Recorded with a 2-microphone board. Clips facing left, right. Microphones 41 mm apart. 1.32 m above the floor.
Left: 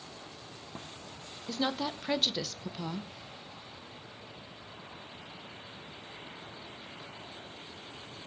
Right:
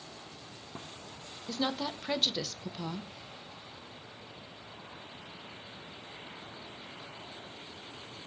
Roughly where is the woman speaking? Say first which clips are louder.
Left 1 dB; centre.